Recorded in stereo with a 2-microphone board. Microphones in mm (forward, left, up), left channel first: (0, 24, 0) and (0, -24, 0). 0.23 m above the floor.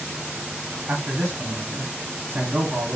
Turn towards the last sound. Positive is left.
turn(degrees=-45)  # may be behind; listen again after turning